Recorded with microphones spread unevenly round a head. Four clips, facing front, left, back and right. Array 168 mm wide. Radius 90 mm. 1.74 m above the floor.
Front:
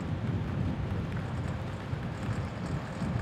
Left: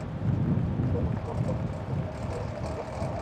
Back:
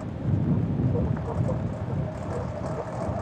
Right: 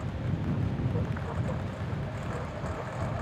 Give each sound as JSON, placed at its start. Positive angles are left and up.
{"t": 0.0, "sound": "a lawn mower", "azimuth_deg": 165}